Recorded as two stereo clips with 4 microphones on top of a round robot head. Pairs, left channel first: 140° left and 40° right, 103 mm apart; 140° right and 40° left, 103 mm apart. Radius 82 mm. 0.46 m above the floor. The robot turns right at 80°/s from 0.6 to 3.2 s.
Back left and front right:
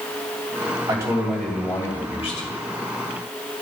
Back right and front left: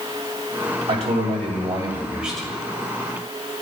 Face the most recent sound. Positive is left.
turn(degrees=-165)